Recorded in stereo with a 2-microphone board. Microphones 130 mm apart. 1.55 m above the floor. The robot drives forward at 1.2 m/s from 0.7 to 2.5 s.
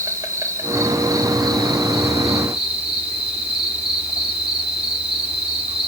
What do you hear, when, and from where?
0.0 s an insect: 25° right (ahead or behind), 2.5 m; by 5.9 s 50° right (ahead or behind), 1.5 m